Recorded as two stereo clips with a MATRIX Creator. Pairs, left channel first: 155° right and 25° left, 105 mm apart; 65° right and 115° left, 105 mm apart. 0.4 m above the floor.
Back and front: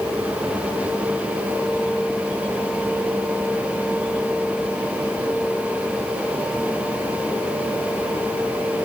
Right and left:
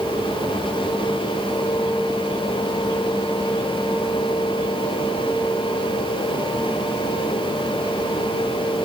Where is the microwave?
I don't hear a microwave.